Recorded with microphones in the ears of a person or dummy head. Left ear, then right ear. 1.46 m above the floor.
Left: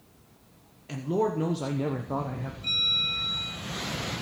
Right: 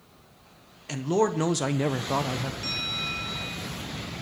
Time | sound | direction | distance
0.9 | a man speaking | 30° right (ahead or behind) | 1.3 m
2.6 | a bell | 70° right (ahead or behind) | 8.5 m